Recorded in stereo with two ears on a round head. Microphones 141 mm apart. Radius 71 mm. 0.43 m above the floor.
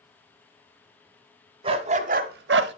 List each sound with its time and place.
1.6 s a dog barking: 35° right (ahead or behind), 1.2 m; by 2.7 s 80° right, 0.8 m